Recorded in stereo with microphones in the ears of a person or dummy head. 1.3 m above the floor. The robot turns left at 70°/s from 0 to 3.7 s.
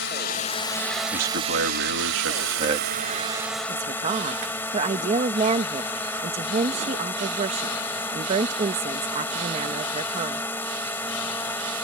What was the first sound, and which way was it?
A drone, 70° left.